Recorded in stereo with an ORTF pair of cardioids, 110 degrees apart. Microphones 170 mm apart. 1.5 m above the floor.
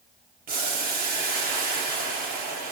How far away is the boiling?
About 1.3 m.